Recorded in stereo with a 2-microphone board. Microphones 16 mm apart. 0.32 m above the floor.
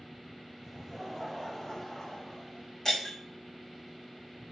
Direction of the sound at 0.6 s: 10° right (ahead or behind).